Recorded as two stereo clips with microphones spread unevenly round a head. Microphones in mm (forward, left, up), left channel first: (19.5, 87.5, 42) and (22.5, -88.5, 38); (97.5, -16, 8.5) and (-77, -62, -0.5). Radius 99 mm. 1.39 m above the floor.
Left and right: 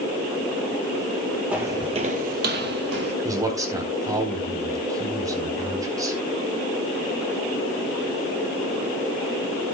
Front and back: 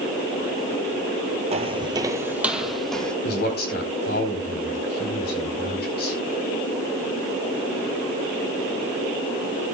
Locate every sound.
1.5 s footsteps: 170° right, 1.5 m; by 3.1 s 70° right, 2.5 m
3.2 s a man speaking: 20° right, 4.5 m